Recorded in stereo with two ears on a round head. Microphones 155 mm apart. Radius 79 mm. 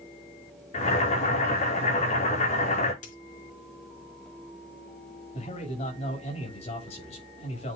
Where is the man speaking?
35° left (ahead or behind), 7.5 m.